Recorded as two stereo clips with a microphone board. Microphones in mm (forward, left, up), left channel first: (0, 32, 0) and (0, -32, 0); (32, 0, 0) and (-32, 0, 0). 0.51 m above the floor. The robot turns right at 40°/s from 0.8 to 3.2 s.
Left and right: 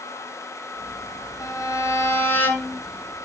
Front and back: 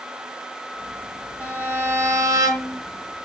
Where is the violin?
110° left, 1.7 m; by 2.8 s 165° left, 1.7 m.